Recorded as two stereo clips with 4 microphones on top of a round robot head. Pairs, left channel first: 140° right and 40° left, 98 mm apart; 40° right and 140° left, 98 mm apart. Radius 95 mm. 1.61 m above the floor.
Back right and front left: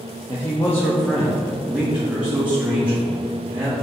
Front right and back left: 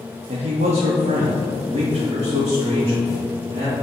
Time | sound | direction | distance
0.3 | a man speaking | 160° left | 0.8 m